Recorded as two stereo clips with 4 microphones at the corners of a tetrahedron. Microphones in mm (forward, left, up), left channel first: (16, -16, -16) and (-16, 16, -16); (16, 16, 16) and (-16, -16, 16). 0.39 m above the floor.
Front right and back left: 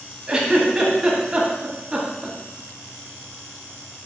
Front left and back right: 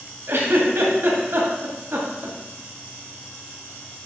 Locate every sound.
0.3 s a giggle: 150° right, 2 m